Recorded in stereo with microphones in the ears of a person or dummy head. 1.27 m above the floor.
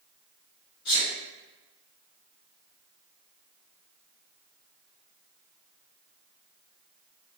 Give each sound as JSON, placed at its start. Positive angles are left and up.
{"t": 0.8, "sound": "a sneeze", "side_deg": 75, "distance_m": 1.5}